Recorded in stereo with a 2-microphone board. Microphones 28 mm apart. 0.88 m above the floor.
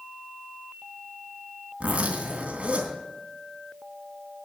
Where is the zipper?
55° right (ahead or behind), 2.5 m.